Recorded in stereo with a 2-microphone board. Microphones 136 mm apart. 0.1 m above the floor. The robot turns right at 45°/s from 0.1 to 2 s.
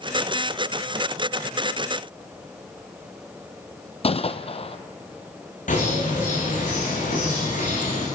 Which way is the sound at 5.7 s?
65° left (ahead or behind).